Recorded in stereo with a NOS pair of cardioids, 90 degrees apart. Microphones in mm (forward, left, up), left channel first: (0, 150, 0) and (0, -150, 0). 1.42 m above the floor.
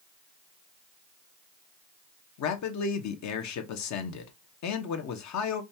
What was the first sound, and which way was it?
A man speaking, 70° left.